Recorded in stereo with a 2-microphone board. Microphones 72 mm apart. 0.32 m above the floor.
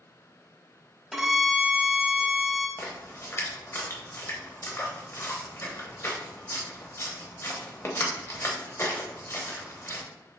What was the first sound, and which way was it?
A violin, 5° right (ahead or behind).